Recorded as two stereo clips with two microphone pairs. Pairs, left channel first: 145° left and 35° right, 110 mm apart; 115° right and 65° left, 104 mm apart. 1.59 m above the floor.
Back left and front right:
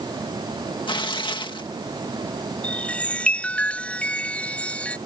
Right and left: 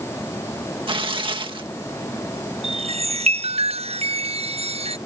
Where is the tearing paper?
100° left.